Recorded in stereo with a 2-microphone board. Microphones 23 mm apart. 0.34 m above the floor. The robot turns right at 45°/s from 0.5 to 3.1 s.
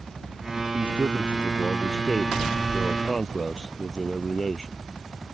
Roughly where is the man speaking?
Right.